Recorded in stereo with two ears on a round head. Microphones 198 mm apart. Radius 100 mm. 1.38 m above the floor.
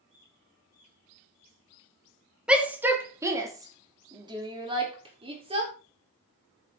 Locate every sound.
2.5 s a shout: 5° right (ahead or behind), 2 m; by 5.7 s 25° right (ahead or behind), 4 m